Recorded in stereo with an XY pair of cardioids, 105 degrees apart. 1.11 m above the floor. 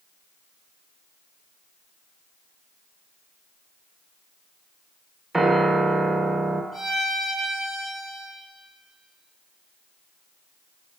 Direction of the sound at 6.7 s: 10° left.